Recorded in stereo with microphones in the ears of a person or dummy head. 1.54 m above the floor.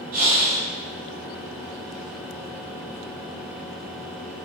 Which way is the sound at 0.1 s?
50° right (ahead or behind).